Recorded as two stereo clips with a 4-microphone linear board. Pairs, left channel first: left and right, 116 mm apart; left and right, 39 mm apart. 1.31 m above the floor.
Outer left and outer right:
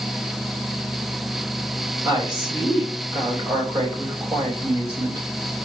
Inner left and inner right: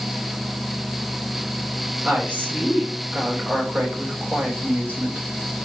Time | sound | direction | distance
2.0 | a woman speaking | 40° right (ahead or behind) | 8 m